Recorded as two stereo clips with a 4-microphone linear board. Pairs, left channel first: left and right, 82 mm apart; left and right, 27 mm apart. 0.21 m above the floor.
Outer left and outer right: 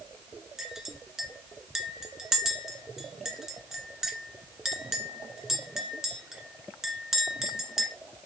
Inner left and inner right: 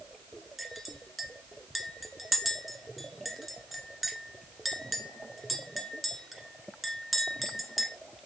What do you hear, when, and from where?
0.6 s a clink: 5° right (ahead or behind), 1.4 m